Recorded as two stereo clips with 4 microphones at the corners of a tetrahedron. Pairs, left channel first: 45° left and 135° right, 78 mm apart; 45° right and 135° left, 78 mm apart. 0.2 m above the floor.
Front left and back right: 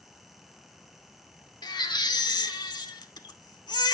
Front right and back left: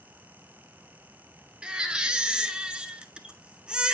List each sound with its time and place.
1.6 s a baby crying: 60° left, 0.6 m